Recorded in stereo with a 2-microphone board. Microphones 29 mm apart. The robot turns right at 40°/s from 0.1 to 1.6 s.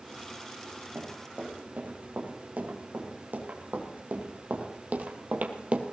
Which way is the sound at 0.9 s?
55° right (ahead or behind).